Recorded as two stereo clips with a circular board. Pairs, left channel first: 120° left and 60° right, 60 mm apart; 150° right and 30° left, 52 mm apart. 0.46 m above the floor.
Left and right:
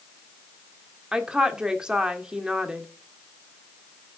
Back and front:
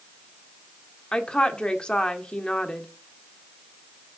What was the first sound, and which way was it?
A woman speaking, 110° right.